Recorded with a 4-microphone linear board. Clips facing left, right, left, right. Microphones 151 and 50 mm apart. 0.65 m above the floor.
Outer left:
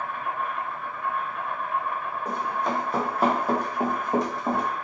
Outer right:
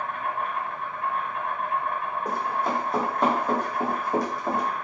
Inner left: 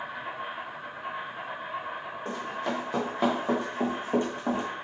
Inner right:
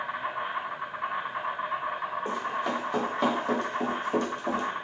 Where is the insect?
70° right (ahead or behind), 1.1 m.